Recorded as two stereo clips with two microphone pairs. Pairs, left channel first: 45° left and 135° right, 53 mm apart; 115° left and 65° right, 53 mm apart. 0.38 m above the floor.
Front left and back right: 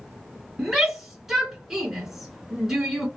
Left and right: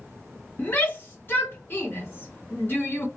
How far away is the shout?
About 1.8 m.